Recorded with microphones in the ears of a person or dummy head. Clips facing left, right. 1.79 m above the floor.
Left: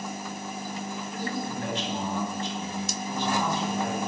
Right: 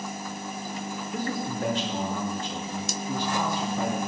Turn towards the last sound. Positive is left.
turn(degrees=-85)